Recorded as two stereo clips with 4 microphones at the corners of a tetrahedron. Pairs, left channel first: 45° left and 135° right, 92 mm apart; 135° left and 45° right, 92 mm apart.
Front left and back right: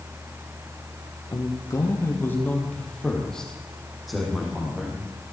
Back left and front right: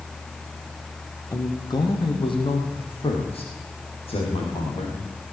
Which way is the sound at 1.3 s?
85° left.